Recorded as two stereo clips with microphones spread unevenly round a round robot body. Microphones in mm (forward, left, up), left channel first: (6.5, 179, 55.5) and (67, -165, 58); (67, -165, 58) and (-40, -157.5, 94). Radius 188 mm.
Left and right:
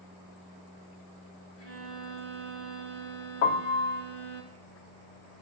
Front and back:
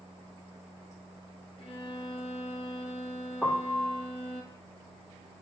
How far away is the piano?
About 1.1 m.